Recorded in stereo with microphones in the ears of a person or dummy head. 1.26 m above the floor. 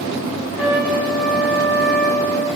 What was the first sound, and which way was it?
A trumpet, 5° right (ahead or behind).